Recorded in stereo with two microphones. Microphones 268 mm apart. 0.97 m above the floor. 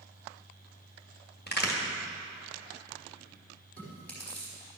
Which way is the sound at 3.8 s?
5° left (ahead or behind).